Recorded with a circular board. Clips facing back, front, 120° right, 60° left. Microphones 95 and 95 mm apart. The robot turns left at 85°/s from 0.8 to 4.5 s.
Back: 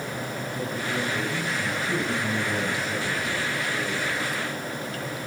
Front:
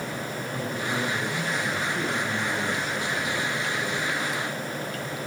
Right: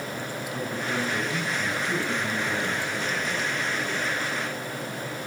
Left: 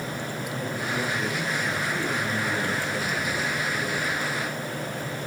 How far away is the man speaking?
About 8 m.